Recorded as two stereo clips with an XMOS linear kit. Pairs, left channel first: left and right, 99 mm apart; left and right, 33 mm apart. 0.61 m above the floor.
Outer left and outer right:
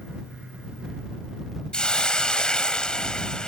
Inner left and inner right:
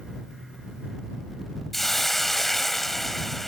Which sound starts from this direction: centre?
A hiss, at 1.7 s.